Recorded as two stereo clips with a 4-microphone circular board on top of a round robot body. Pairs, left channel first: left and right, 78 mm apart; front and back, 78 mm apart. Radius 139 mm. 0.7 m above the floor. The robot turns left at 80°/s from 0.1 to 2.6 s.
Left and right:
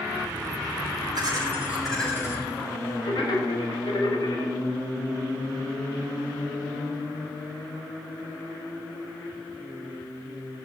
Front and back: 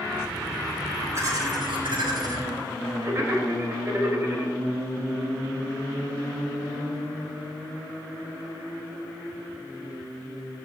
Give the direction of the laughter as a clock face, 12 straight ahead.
4 o'clock.